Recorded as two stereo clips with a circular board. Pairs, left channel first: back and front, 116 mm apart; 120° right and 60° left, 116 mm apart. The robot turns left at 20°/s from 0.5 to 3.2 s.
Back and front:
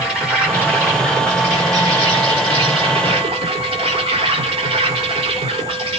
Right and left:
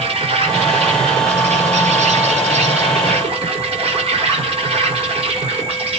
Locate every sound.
0.0 s an insect: 80° left, 5.5 m; by 6.0 s 25° left, 5.5 m